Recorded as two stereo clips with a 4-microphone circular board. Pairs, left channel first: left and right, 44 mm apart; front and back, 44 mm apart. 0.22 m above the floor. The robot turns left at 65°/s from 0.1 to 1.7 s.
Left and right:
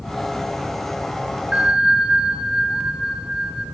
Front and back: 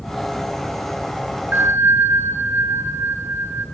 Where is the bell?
150° right, 0.6 m; by 3.6 s 160° right, 0.6 m.